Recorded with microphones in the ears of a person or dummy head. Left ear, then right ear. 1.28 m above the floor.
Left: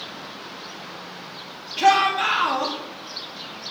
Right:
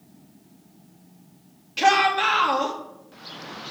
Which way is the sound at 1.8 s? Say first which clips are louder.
Left 1 dB; 15° right (ahead or behind).